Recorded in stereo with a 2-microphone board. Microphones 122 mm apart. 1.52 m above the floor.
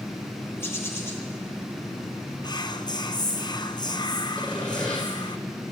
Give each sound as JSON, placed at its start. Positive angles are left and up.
{"t": 0.6, "sound": "a bird", "side_deg": 20, "distance_m": 2.0}
{"t": 2.4, "sound": "whispering", "side_deg": 35, "distance_m": 0.7}
{"t": 4.4, "sound": "sawing", "side_deg": 10, "distance_m": 6.0}